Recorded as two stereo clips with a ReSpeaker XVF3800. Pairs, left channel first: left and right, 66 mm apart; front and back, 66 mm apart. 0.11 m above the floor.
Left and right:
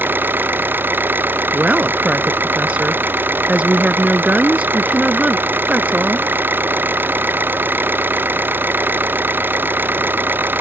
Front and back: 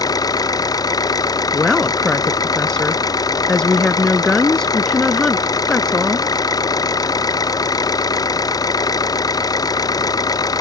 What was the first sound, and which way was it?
An engine running, 30° right.